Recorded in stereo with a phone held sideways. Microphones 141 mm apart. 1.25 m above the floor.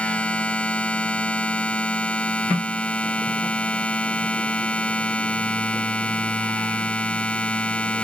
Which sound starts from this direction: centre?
A machine running, at 0.0 s.